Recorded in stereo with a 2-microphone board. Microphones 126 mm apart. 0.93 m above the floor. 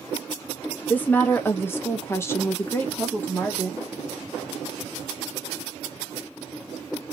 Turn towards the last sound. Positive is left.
turn(degrees=10)  # may be behind; listen again after turning